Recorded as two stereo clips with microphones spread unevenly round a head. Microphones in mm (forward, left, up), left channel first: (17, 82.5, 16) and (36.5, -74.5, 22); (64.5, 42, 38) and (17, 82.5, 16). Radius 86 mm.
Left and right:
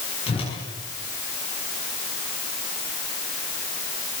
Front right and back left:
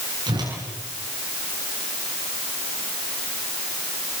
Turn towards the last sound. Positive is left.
turn(degrees=160)